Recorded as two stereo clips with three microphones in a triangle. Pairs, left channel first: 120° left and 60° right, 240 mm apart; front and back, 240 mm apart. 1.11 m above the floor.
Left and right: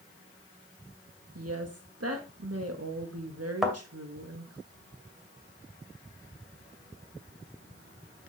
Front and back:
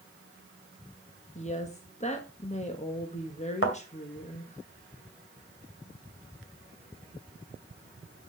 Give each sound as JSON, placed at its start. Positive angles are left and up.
{"t": 1.4, "sound": "a woman speaking", "azimuth_deg": -65, "distance_m": 1.2}
{"t": 3.6, "sound": "a thud", "azimuth_deg": 30, "distance_m": 2.5}